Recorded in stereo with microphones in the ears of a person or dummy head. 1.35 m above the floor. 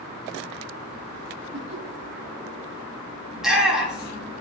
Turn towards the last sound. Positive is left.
turn(degrees=-5)  # may be behind; listen again after turning